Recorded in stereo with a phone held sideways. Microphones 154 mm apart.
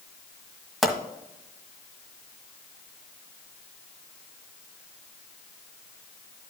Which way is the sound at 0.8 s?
Centre (ahead or behind).